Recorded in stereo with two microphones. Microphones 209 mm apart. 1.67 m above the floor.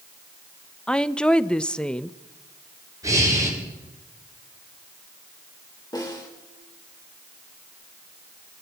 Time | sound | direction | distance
0.9 | a woman speaking | 5° left (ahead or behind) | 0.5 m
3.0 | breathing | 15° right (ahead or behind) | 8.5 m
5.9 | a snare drum | 20° left (ahead or behind) | 4 m